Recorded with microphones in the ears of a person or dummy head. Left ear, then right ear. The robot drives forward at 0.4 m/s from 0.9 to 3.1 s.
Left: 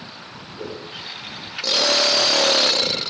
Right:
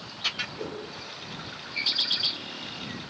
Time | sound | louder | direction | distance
0.6 | a whoosh | left 3 dB | 15° right (ahead or behind) | 5 m